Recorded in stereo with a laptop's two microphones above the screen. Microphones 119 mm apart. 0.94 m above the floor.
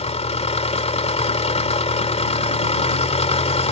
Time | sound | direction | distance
0.0 | an engine running | 75° left (ahead or behind) | ?